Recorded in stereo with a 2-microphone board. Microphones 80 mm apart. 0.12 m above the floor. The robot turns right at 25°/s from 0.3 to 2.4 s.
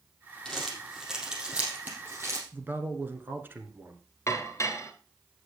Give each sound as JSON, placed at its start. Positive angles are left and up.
{"t": 0.5, "sound": "crumpling", "side_deg": 10, "distance_m": 4.0}
{"t": 2.5, "sound": "a man speaking", "side_deg": -30, "distance_m": 1.3}
{"t": 4.3, "sound": "dishes clattering", "side_deg": 40, "distance_m": 1.4}